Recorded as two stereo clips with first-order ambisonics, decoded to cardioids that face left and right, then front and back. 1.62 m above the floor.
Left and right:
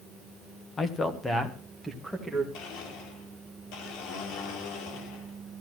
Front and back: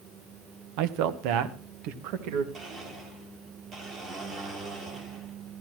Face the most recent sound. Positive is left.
turn(degrees=110)